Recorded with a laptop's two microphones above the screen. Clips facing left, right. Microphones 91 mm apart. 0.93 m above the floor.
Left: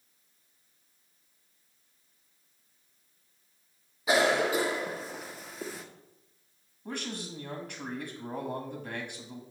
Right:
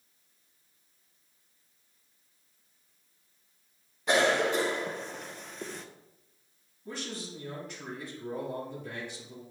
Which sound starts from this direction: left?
A man speaking, at 6.8 s.